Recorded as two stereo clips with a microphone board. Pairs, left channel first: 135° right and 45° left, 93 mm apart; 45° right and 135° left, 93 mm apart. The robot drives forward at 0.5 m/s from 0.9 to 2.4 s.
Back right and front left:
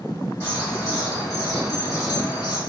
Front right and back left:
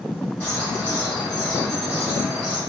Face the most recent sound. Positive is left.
turn(degrees=-135)